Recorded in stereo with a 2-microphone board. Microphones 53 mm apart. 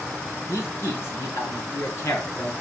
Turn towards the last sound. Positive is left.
turn(degrees=55)  # may be behind; listen again after turning